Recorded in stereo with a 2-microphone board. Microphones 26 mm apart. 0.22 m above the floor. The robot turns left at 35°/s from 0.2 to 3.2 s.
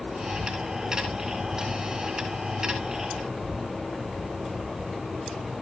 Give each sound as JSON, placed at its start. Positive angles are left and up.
{"t": 0.0, "sound": "an insect", "azimuth_deg": -40, "distance_m": 2.0}